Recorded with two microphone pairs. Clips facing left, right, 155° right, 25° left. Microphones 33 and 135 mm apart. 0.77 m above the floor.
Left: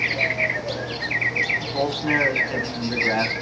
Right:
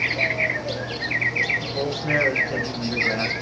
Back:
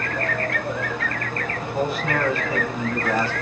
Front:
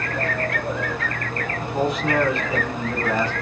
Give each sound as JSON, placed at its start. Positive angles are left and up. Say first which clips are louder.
{"t": 1.6, "sound": "a man speaking", "louder": "left 2 dB, front 2 dB", "azimuth_deg": 100, "distance_m": 2.5}